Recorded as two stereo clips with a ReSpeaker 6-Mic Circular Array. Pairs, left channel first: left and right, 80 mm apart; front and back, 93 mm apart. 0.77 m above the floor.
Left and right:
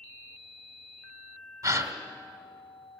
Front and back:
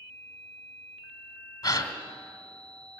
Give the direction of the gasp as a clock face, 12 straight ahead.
2 o'clock.